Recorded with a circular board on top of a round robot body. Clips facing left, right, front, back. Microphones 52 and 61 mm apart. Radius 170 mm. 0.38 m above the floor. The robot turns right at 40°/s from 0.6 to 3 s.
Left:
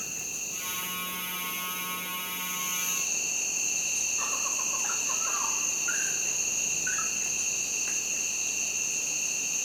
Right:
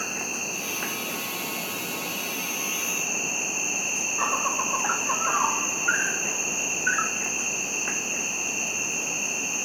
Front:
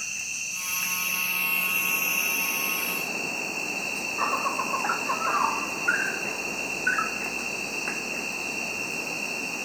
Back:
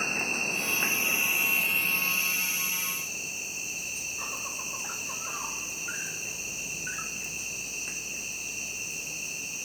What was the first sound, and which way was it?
An insect, 130° right.